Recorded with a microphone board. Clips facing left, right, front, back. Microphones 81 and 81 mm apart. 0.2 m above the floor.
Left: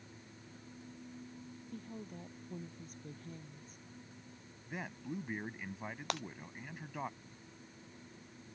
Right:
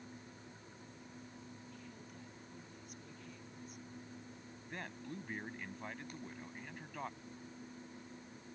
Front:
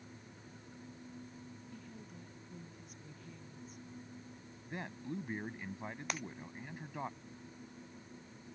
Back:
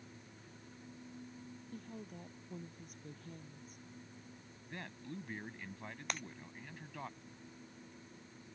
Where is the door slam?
No door slam in this recording.